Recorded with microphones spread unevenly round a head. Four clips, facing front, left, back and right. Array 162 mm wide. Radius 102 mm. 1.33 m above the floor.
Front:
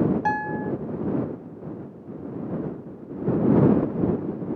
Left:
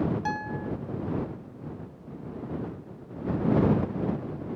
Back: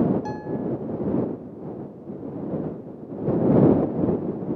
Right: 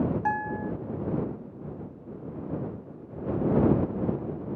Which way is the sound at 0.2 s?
15° right.